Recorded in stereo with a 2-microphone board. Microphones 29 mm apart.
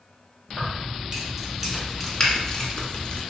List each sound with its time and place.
0.5 s keys jangling: 25° right (ahead or behind), 1.6 m; by 3.2 s 45° left (ahead or behind), 1.1 m
2.2 s a finger snap: 35° left (ahead or behind), 1.5 m